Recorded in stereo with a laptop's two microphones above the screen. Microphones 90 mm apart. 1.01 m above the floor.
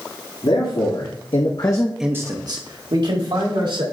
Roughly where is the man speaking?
Left.